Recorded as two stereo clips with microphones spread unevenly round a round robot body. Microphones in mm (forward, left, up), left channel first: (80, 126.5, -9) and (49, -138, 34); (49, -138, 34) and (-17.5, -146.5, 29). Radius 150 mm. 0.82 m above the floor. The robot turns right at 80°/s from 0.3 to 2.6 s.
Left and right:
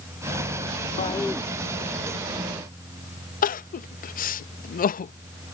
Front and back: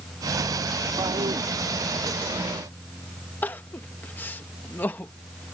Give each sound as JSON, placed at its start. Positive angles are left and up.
{"t": 1.0, "sound": "a toilet flushing", "azimuth_deg": 145}
{"t": 3.4, "sound": "crying", "azimuth_deg": 65}